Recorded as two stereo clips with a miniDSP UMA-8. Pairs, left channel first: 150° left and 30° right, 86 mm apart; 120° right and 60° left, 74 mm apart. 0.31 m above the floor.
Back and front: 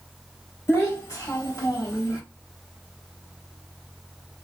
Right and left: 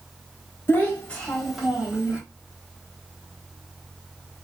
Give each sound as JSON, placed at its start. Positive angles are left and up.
{"t": 0.7, "sound": "a child speaking", "azimuth_deg": -165, "distance_m": 1.3}